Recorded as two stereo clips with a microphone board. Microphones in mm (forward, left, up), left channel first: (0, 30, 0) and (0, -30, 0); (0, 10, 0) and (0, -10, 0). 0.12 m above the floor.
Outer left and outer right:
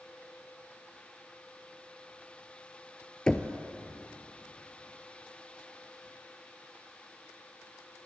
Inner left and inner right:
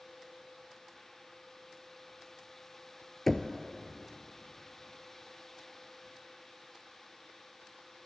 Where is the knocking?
15° left (ahead or behind), 1.5 m.